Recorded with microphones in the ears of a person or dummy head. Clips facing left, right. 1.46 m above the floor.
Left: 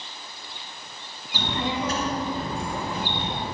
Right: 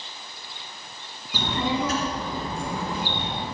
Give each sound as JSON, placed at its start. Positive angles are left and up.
{"t": 1.3, "sound": "a child speaking", "side_deg": -80, "distance_m": 2.5}